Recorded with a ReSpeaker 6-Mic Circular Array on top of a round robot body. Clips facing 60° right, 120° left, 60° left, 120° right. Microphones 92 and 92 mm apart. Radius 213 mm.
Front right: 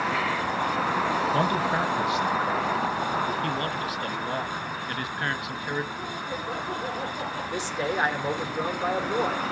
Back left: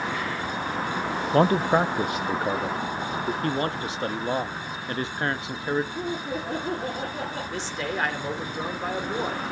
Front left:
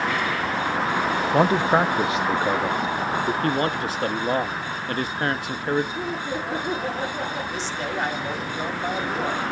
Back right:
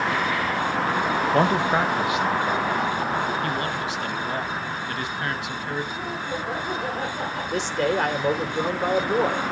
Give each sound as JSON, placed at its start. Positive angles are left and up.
{"t": 1.3, "sound": "a man speaking", "azimuth_deg": 145, "distance_m": 0.9}
{"t": 3.4, "sound": "a man speaking", "azimuth_deg": 75, "distance_m": 1.0}
{"t": 6.0, "sound": "laughter", "azimuth_deg": 130, "distance_m": 8.0}
{"t": 7.5, "sound": "a man speaking", "azimuth_deg": -140, "distance_m": 3.5}